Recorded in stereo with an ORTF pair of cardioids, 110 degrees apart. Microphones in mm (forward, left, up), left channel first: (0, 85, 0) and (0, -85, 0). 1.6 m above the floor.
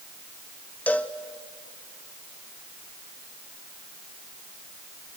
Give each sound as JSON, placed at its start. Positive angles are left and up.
{"t": 0.9, "sound": "a cowbell", "azimuth_deg": 10, "distance_m": 1.0}